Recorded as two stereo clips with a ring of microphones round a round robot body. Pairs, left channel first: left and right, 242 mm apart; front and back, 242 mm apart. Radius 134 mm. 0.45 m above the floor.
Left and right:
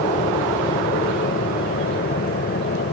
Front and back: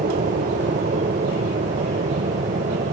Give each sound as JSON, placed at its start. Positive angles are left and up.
{"t": 0.0, "sound": "an aircraft", "azimuth_deg": 135}